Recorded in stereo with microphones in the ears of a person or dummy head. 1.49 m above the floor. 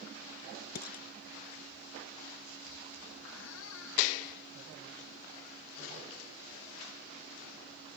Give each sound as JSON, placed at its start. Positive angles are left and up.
{"t": 0.8, "sound": "dishes clattering", "side_deg": 50}
{"t": 3.2, "sound": "a squeak", "side_deg": 85}